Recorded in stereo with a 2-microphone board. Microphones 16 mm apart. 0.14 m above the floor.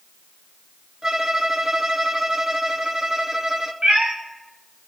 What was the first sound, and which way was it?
A violin, 35° right (ahead or behind).